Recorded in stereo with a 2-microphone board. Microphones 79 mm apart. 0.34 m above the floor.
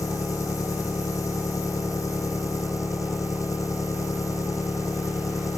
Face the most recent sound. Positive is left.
turn(degrees=45)  # may be behind; listen again after turning